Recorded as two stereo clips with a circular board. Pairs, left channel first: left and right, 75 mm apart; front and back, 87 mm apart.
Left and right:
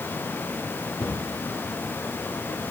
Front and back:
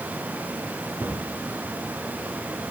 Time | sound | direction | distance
1.0 | a cupboard door | 110° left | 8 m